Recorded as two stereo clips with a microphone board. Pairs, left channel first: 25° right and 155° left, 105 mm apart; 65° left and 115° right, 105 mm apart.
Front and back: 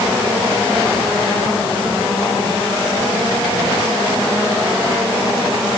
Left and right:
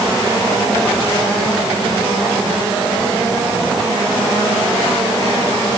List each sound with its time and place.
Only background noise.